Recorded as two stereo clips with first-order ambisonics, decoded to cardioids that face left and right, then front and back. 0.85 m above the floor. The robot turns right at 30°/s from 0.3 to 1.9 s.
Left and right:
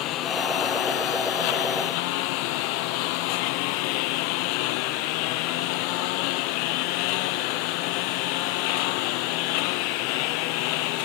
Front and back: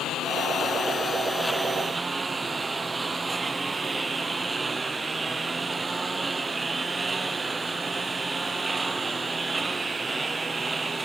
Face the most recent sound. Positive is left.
turn(degrees=100)